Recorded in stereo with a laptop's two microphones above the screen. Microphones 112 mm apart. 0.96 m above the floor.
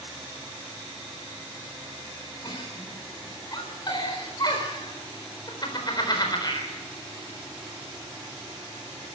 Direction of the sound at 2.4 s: 40° left (ahead or behind).